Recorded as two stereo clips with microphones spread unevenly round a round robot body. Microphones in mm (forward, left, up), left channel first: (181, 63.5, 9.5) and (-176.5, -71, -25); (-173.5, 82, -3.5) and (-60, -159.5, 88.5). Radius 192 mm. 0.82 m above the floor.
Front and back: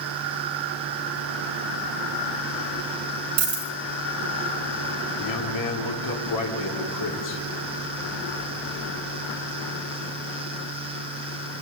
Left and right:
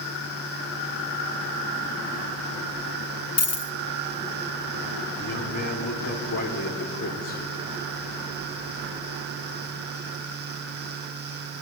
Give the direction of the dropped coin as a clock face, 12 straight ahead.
7 o'clock.